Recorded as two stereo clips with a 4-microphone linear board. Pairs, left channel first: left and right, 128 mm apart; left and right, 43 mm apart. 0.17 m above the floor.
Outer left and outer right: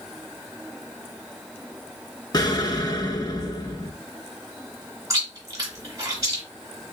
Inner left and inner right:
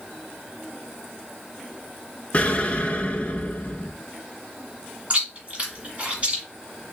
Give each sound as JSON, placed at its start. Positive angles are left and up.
{"t": 2.3, "sound": "an explosion", "side_deg": 35, "distance_m": 0.5}
{"t": 5.1, "sound": "chewing", "side_deg": -25, "distance_m": 1.8}